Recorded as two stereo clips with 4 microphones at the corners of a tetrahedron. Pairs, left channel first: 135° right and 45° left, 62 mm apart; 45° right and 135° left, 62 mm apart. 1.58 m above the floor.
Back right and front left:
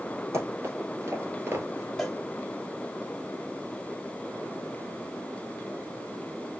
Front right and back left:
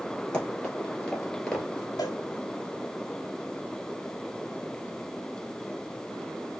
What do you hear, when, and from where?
0.3 s running footsteps: 20° left, 2.5 m; by 1.9 s 25° left, 1.8 m
2.0 s a cowbell: 45° right, 1.0 m